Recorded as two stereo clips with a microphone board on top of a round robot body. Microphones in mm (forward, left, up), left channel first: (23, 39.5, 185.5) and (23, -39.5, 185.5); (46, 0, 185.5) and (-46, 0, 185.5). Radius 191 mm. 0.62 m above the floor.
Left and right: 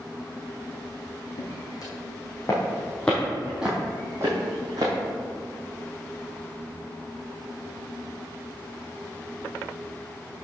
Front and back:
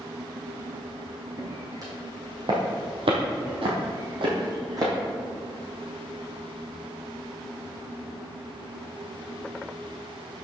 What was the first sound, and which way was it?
Footsteps, 130° left.